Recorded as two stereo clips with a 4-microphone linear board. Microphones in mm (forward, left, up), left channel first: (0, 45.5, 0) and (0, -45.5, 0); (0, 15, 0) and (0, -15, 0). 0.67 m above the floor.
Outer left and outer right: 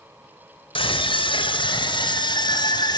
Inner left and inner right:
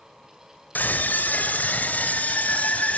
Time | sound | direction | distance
0.8 | a scream | 75° left (ahead or behind) | 2.5 m